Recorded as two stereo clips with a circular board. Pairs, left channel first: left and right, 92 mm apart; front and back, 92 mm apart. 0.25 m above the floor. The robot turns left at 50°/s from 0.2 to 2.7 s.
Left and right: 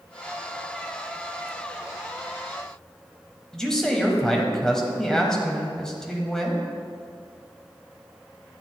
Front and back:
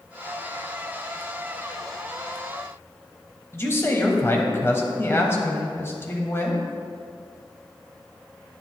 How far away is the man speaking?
About 1.0 m.